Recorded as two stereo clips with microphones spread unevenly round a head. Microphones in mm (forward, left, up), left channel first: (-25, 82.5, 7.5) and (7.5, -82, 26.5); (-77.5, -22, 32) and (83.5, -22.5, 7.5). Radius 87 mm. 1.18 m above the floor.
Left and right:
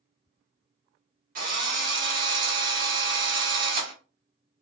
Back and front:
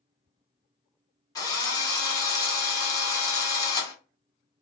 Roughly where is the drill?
Behind right.